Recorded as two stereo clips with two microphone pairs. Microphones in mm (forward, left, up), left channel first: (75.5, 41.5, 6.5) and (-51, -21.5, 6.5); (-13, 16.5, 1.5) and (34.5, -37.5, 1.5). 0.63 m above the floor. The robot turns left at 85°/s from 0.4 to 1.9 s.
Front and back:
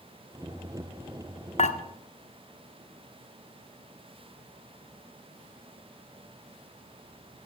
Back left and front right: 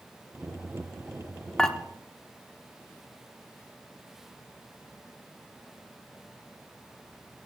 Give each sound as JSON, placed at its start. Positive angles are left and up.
{"t": 1.6, "sound": "dishes clattering", "azimuth_deg": 50, "distance_m": 0.8}